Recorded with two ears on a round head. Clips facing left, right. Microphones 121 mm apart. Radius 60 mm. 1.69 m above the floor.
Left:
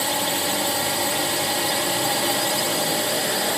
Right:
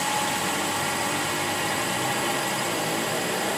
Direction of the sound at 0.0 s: 40° left (ahead or behind).